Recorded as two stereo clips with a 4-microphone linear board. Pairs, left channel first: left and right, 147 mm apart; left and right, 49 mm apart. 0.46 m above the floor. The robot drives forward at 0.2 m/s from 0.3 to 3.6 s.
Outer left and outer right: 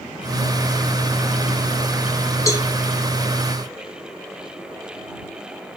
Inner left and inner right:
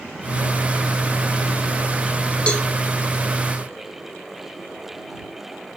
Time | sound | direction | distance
2.5 | a cowbell | 20° left (ahead or behind) | 1.4 m